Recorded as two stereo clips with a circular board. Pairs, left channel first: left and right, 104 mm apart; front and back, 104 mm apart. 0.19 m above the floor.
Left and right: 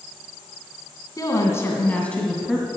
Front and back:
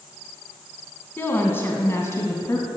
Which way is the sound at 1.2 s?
60° left.